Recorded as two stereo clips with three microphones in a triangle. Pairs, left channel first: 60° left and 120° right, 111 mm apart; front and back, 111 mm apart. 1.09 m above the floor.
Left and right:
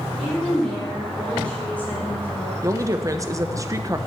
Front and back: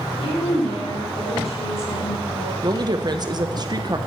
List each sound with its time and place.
0.2 s a woman speaking: 30° right, 3 m; by 2.5 s 10° right, 3.5 m
2.6 s a woman speaking: 160° right, 0.8 m